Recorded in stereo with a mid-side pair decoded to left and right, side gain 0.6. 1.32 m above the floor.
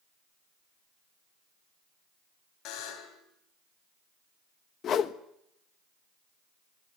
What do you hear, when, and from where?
2.6 s a buzzer: 65° left, 3.5 m
4.8 s a whoosh: 50° left, 1.2 m